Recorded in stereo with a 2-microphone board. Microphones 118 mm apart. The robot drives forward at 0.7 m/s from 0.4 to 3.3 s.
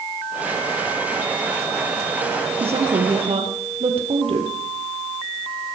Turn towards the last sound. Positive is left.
turn(degrees=-60)  # may be behind; listen again after turning